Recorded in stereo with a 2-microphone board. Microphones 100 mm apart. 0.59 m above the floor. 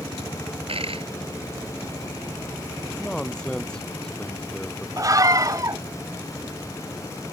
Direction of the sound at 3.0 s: 5° left (ahead or behind).